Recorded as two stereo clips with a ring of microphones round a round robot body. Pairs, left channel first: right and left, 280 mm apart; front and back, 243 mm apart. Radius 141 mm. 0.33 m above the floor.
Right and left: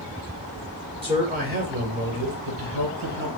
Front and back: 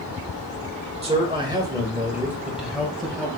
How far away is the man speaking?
About 1.6 m.